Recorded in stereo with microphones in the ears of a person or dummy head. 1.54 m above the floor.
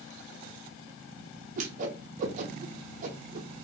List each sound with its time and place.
1.6 s a whoosh: 45° right (ahead or behind), 0.7 m